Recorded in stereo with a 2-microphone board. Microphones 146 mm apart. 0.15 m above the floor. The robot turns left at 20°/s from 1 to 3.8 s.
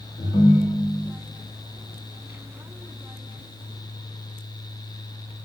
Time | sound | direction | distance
0.2 | a ringtone | 15° left (ahead or behind) | 0.7 m